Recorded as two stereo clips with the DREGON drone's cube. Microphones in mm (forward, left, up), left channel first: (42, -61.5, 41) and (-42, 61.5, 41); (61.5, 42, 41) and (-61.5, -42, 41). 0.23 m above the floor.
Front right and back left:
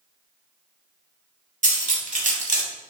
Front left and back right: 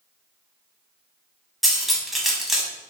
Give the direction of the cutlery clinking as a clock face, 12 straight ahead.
8 o'clock.